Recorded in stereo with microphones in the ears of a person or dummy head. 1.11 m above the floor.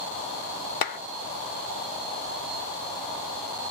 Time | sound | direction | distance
0.8 | a clap | 45° left (ahead or behind) | 0.6 m